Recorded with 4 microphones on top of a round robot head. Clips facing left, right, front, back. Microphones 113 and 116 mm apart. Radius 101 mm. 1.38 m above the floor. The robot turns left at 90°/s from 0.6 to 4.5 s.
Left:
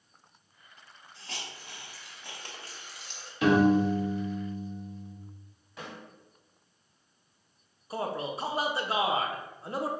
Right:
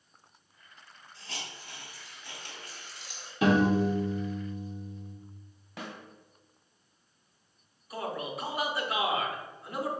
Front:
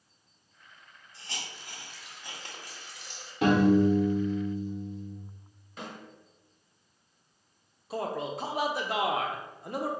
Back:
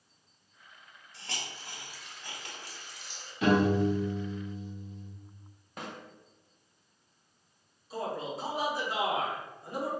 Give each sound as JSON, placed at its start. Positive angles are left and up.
{"t": 1.1, "sound": "a hiss", "azimuth_deg": 170, "distance_m": 1.2}
{"t": 3.4, "sound": "a piano", "azimuth_deg": -55, "distance_m": 1.1}
{"t": 5.8, "sound": "a snare drum", "azimuth_deg": -125, "distance_m": 1.3}
{"t": 7.9, "sound": "a man speaking", "azimuth_deg": 30, "distance_m": 0.7}